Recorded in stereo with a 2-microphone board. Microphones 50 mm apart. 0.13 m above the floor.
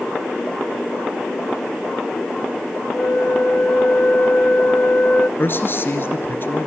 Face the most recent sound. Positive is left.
turn(degrees=45)  # may be behind; listen again after turning